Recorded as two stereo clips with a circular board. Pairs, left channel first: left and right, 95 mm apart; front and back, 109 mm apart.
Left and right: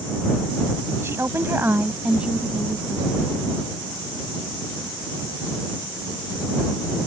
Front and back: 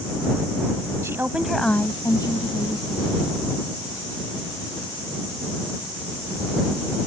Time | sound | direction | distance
1.0 | a woman speaking | 135° right | ?